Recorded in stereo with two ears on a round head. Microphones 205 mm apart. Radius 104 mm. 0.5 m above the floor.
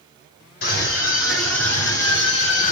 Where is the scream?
55° left (ahead or behind), 3.5 m; by 2.7 s 70° left (ahead or behind), 3.5 m.